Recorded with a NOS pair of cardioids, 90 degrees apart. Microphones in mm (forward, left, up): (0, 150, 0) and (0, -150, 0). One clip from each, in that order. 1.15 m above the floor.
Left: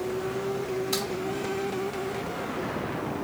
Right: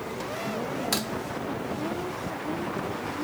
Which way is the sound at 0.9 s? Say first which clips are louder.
Right 1 dB; 70° right.